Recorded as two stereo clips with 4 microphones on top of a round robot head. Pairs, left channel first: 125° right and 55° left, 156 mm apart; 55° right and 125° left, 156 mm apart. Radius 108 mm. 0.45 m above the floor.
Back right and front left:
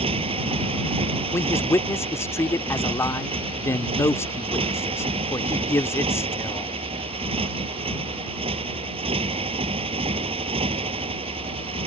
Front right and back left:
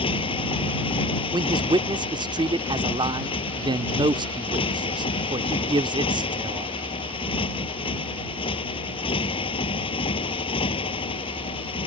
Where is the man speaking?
170° left.